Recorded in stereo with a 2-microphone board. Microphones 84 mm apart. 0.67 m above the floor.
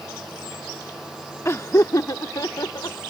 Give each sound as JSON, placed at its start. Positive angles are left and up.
{"t": 1.4, "sound": "laughter", "side_deg": 30}